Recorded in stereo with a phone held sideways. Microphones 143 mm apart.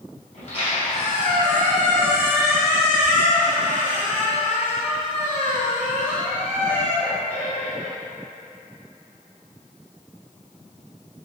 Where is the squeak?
50° left (ahead or behind), 1.9 m.